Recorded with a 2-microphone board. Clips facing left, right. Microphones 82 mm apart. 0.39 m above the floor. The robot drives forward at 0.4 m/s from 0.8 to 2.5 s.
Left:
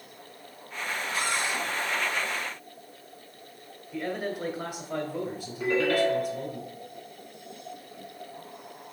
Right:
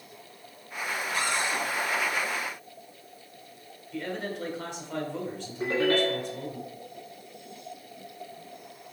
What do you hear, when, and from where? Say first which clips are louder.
1.1 s a cupboard door: right 1 dB; 60° right (ahead or behind), 1.8 m; by 1.6 s 55° right (ahead or behind), 1.9 m
3.9 s a man speaking: left 2 dB; 10° left (ahead or behind), 1.2 m
5.6 s a ringtone: left 1 dB; 30° right (ahead or behind), 2.5 m